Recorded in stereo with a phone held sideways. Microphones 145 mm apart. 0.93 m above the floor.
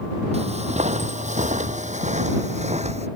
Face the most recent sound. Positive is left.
turn(degrees=-50)  # may be behind; listen again after turning